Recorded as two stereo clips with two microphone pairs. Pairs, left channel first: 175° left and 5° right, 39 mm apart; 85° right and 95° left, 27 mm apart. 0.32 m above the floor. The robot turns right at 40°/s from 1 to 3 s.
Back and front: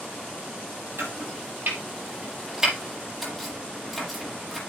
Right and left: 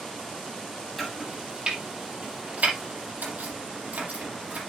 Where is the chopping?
5° left, 6 m; by 4.6 s 85° left, 6 m.